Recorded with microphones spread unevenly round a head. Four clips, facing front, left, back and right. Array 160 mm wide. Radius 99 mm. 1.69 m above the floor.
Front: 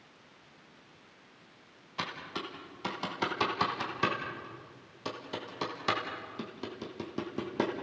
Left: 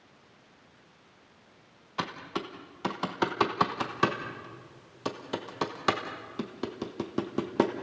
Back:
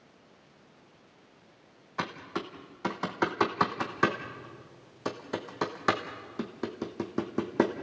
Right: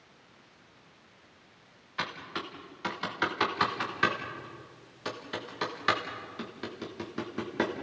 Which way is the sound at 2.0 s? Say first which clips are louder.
Left 3 dB, back 4 dB; 140° left.